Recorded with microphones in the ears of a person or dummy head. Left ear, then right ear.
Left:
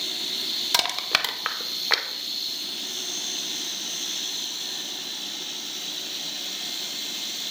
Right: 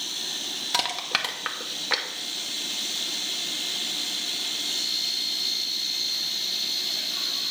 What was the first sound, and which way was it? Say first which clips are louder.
Crushing: left 2 dB; 15° left (ahead or behind).